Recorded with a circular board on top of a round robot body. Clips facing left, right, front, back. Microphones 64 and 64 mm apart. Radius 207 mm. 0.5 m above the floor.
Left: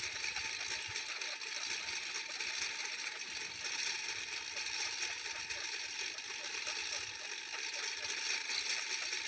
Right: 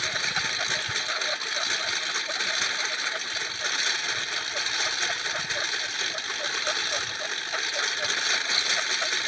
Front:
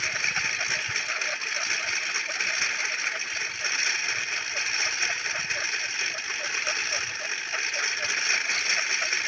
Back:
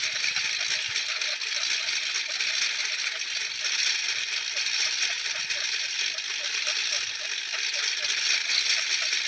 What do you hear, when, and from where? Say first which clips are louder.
0.0 s a lawn mower: right 15 dB, front 3 dB; 65° right